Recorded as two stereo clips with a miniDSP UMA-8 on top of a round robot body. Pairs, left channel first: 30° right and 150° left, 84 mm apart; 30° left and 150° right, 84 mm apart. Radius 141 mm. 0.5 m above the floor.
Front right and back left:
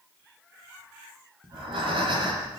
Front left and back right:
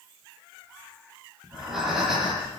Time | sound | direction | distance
1.4 | breathing | 125° left | 9.5 m